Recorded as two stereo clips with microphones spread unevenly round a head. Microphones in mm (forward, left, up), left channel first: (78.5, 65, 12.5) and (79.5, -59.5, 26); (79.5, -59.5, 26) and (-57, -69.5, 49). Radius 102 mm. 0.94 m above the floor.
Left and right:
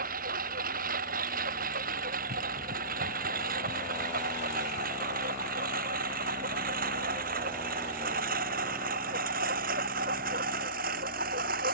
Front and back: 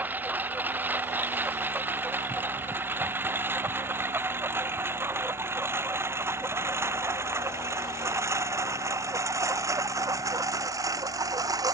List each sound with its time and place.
0.0 s a lawn mower: 100° right; by 11.8 s 115° right